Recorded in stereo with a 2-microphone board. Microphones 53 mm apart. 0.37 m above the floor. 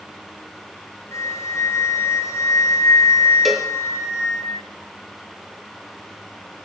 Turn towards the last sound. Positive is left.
turn(degrees=0)  # may be behind; listen again after turning